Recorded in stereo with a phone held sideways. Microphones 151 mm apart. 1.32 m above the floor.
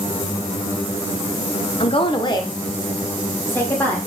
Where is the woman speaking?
40° left (ahead or behind), 1.0 m; by 4.0 s 15° left (ahead or behind), 2 m.